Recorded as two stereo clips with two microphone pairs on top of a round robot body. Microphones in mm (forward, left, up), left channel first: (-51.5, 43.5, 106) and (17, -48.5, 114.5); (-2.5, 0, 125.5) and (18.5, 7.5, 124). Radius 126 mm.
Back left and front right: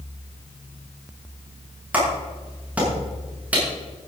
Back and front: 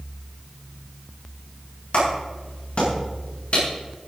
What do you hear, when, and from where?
1.9 s a clap: 130° right, 7 m